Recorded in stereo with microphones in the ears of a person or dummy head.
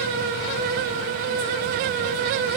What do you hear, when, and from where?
Only background noise.